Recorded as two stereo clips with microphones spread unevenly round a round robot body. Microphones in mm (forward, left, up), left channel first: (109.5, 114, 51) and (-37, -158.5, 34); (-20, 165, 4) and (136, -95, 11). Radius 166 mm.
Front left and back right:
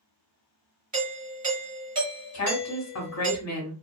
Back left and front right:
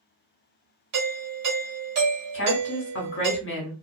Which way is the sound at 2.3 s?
85° left.